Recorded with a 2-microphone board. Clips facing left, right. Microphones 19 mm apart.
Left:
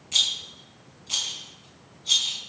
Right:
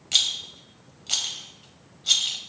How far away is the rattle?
About 2.5 m.